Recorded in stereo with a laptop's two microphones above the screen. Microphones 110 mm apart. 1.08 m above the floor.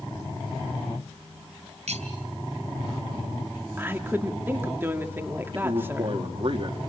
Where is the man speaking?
55° right (ahead or behind), 2.5 m.